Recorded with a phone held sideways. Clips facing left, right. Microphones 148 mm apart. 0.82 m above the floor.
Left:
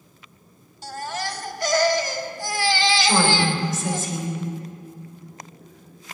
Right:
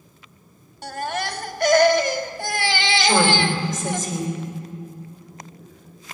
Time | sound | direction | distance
0.8 | a baby crying | 60° right (ahead or behind) | 0.7 m
3.0 | a woman speaking | 45° right (ahead or behind) | 3.5 m